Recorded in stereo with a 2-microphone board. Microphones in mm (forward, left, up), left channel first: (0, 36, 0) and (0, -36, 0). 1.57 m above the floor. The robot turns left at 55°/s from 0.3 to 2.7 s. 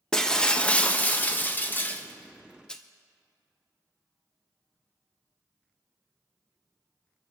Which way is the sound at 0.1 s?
10° left (ahead or behind).